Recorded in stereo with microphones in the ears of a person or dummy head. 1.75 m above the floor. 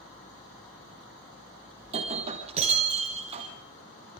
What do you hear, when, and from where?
1.8 s breaking glass: 40° right (ahead or behind), 3.5 m